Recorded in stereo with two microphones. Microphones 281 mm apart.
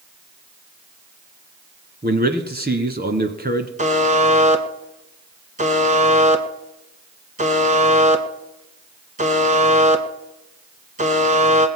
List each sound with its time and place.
2.0 s a man speaking: 35° right (ahead or behind), 1.4 m
3.8 s a buzzer: 25° right (ahead or behind), 1.2 m